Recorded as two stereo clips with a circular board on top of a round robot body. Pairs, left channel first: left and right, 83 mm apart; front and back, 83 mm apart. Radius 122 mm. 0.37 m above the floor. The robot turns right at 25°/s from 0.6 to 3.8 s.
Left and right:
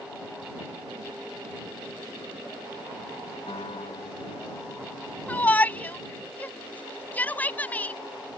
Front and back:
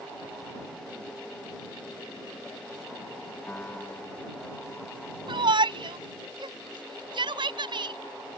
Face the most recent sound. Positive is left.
turn(degrees=160)